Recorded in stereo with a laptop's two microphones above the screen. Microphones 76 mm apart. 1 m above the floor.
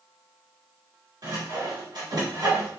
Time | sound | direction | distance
1.2 | sawing | 65° right (ahead or behind) | 1.2 m